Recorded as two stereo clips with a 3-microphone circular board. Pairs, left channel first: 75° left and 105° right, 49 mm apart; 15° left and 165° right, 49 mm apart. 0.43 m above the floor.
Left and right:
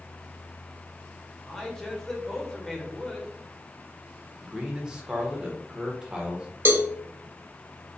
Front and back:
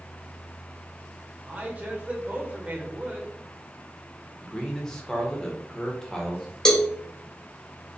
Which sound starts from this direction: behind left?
A man speaking, at 1.5 s.